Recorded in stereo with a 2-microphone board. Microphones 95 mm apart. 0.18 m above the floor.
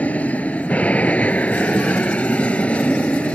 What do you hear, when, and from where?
0.0 s an aircraft: 15° left (ahead or behind)